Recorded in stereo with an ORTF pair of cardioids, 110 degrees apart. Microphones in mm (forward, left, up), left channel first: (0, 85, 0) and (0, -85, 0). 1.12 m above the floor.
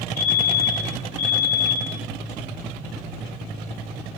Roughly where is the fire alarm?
Ahead left.